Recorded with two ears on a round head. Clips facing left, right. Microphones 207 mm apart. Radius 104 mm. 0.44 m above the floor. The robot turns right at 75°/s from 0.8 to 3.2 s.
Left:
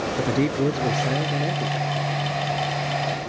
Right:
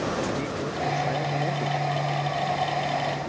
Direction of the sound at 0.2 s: 115° left.